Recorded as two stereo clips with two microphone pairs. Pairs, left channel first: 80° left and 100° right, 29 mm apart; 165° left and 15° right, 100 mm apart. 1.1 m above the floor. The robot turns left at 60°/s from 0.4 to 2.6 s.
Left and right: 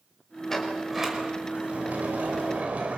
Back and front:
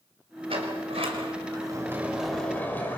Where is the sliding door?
5° left, 4.5 m; by 3.0 s 125° right, 4.5 m.